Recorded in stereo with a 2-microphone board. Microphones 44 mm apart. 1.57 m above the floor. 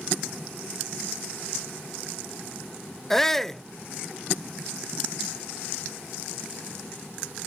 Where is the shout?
10° left (ahead or behind).